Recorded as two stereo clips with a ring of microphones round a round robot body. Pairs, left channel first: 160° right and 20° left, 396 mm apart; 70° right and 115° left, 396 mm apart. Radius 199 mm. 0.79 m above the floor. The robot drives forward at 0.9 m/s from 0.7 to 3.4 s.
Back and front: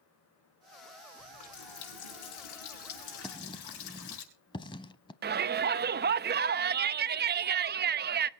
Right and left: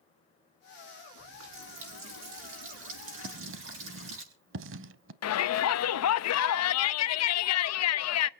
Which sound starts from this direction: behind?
A running tap, at 1.2 s.